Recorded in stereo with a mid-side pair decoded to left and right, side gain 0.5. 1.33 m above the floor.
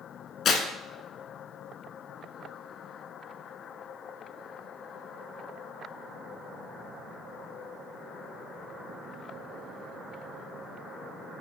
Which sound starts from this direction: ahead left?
Tearing paper, at 0.5 s.